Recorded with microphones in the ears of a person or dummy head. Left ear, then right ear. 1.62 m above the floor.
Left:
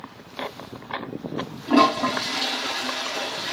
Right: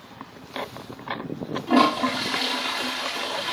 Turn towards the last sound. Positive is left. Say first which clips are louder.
# left 1 dB
turn(degrees=-10)  # may be behind; listen again after turning